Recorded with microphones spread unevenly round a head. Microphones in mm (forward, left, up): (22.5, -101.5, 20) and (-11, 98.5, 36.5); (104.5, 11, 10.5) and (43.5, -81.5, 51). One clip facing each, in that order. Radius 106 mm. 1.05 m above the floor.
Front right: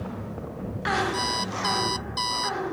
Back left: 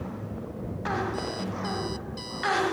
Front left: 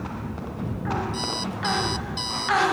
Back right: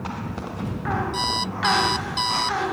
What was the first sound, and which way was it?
An alarm clock, 100° right.